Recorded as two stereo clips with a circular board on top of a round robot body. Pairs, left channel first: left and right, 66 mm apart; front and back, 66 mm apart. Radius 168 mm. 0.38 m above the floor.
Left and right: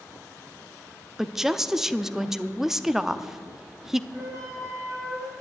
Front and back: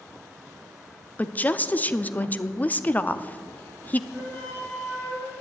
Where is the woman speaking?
15° right, 0.8 m.